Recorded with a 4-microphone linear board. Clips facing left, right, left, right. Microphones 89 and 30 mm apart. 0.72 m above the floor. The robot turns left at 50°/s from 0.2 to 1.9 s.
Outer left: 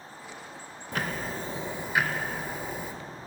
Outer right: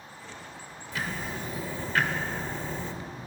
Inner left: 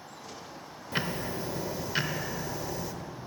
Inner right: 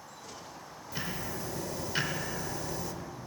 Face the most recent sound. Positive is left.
turn(degrees=10)